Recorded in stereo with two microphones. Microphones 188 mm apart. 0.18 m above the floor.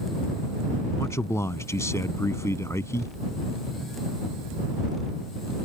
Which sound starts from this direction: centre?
A man speaking, at 1.0 s.